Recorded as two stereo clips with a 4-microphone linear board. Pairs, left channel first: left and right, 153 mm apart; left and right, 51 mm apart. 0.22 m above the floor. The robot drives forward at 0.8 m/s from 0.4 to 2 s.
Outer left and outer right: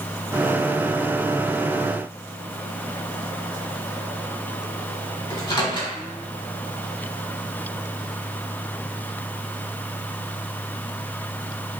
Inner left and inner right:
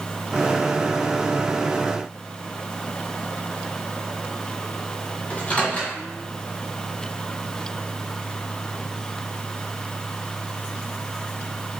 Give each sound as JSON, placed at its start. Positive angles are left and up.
{"t": 5.3, "sound": "a microwave", "side_deg": 25, "distance_m": 1.1}